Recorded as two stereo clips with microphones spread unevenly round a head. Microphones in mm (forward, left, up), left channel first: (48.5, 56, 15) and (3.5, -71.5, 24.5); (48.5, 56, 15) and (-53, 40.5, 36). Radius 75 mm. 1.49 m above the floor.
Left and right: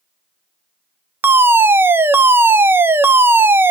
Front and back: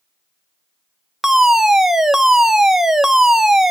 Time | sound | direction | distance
1.2 | a fire alarm | 55° right | 0.6 m